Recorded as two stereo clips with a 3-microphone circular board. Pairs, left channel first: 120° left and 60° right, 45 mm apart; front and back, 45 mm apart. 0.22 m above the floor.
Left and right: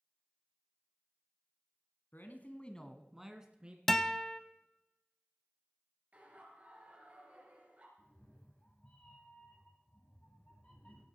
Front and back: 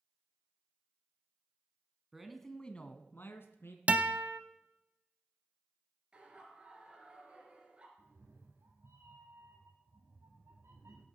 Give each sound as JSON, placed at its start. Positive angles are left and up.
{"t": 2.1, "sound": "a man speaking", "azimuth_deg": 105, "distance_m": 1.6}
{"t": 3.9, "sound": "a guitar", "azimuth_deg": -165, "distance_m": 0.5}
{"t": 6.1, "sound": "laughter", "azimuth_deg": -110, "distance_m": 3.5}
{"t": 8.0, "sound": "a cat meowing", "azimuth_deg": 180, "distance_m": 3.0}